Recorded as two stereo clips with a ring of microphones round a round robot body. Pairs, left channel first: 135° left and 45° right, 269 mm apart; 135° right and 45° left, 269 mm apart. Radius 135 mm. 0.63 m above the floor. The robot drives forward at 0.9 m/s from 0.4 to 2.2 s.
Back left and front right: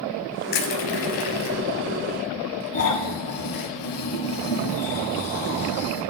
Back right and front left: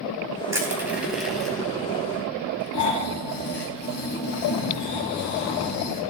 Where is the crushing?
125° left, 3 m; by 3.7 s 145° left, 4 m.